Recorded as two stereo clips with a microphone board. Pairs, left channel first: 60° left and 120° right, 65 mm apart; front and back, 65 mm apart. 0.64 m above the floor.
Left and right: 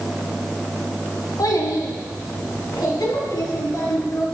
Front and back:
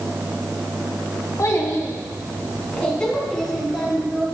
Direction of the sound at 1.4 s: 45° left.